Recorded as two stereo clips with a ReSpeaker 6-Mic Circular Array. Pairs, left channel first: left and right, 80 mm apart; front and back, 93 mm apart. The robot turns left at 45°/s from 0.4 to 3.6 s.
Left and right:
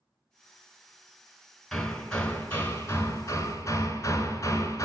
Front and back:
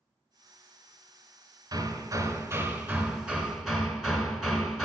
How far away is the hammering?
About 1.1 m.